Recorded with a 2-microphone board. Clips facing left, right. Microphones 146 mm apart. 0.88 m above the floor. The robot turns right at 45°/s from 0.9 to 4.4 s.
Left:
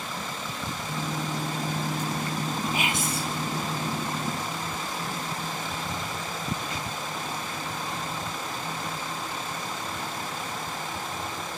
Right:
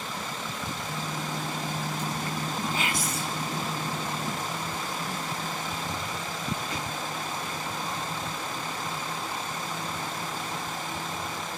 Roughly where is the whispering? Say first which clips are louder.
Left 2 dB; centre.